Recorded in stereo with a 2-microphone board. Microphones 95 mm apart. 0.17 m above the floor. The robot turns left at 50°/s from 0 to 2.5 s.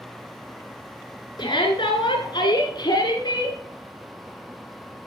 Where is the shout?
115° left, 1.8 m; by 3.6 s 55° left, 1.8 m.